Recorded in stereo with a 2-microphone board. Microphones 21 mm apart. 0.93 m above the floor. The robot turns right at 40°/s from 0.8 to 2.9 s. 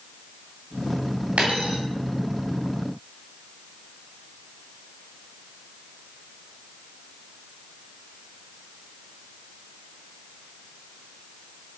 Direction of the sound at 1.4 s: 75° right (ahead or behind).